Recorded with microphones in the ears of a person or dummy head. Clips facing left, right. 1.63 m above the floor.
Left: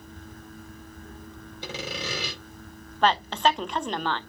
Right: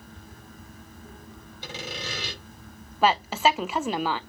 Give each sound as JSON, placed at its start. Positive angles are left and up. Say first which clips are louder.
{"t": 1.6, "sound": "sawing", "louder": "left 3 dB", "side_deg": 70, "distance_m": 4.5}
{"t": 3.0, "sound": "a woman speaking", "louder": "right 1 dB", "side_deg": -10, "distance_m": 0.5}